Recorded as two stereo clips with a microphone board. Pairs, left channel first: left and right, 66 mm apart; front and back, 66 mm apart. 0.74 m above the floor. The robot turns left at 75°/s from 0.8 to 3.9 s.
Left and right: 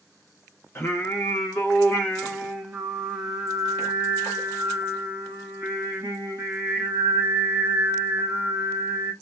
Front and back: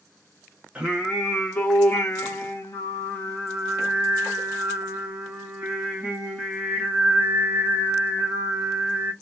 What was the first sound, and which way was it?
Singing, 115° left.